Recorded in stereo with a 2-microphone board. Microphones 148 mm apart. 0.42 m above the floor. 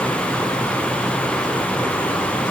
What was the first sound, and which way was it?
Only background noise.